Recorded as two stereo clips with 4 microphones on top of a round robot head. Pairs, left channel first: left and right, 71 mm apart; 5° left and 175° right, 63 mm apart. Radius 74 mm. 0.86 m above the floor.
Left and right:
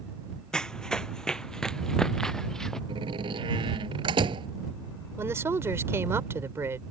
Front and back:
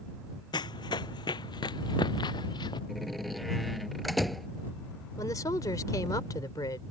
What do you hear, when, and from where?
0.5 s running footsteps: 10° left
2.9 s a door slam: 80° right
5.2 s a woman speaking: 35° right